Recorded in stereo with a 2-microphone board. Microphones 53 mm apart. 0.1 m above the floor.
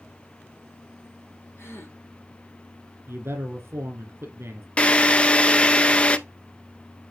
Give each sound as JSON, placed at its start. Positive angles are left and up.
{"t": 1.6, "sound": "a gasp", "side_deg": 55, "distance_m": 2.0}
{"t": 3.1, "sound": "a man speaking", "side_deg": -55, "distance_m": 2.5}
{"t": 4.8, "sound": "a drill", "side_deg": 25, "distance_m": 0.5}